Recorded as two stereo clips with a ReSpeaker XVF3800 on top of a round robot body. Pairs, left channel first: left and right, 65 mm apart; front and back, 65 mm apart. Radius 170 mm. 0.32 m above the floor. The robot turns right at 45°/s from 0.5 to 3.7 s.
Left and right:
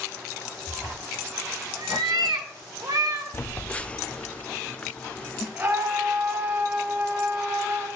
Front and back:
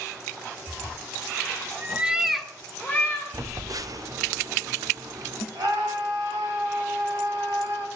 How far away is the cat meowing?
About 1.2 m.